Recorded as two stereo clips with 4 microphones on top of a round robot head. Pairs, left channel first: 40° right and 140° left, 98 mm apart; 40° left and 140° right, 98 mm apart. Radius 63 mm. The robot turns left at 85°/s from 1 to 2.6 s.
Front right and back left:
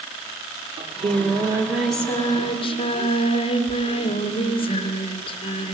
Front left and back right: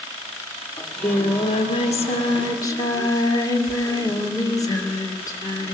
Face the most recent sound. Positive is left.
turn(degrees=-15)